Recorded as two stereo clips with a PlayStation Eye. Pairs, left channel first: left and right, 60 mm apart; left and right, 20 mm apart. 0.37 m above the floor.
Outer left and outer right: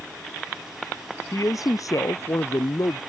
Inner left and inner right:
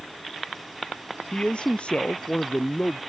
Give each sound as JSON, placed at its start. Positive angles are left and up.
{"t": 1.3, "sound": "a man speaking", "side_deg": 70}